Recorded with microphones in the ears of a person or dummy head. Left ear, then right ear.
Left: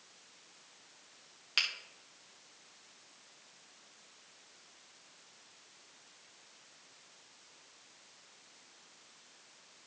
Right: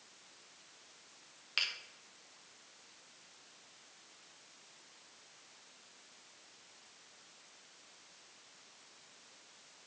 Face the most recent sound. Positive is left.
turn(degrees=15)  # may be behind; listen again after turning